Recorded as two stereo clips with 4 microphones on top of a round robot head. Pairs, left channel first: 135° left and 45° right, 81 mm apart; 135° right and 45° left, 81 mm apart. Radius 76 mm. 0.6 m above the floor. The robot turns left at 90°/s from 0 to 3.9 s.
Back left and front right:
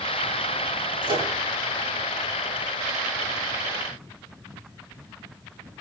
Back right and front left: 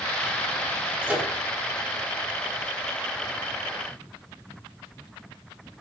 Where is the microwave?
25° right, 9 m; by 1.3 s 50° right, 9 m.